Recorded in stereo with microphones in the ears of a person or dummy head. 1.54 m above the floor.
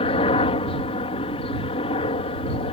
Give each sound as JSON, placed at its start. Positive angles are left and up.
{"t": 0.0, "sound": "a helicopter", "side_deg": 30}